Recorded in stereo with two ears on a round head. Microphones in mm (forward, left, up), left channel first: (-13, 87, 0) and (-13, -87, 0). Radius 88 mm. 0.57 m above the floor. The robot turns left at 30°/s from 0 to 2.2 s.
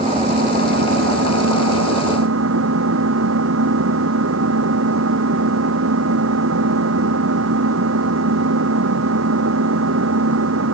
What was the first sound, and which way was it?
An engine running, 30° right.